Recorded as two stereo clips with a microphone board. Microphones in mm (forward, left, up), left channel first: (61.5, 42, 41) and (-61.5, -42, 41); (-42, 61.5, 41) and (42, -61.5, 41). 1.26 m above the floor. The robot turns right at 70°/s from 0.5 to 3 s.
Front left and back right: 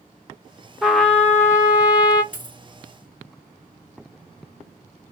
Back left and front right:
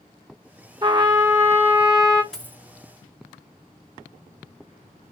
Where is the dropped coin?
40° left, 1.3 m; by 2.6 s 60° left, 1.3 m.